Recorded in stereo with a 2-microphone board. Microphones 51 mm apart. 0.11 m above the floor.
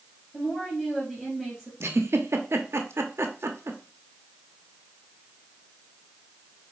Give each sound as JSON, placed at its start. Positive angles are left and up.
{"t": 0.3, "sound": "a woman speaking", "side_deg": 10, "distance_m": 3.0}
{"t": 1.8, "sound": "a giggle", "side_deg": -60, "distance_m": 0.7}